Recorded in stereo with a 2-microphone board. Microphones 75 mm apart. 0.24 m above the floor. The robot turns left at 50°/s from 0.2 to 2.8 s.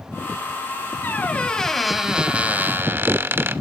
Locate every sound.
1.0 s a squeak: 40° left, 0.7 m; by 3.6 s 50° right, 0.7 m